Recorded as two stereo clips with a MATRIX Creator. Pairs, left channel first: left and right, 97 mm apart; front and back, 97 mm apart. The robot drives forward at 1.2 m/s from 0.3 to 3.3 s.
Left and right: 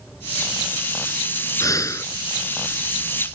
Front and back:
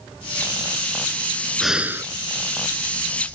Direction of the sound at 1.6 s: 85° left.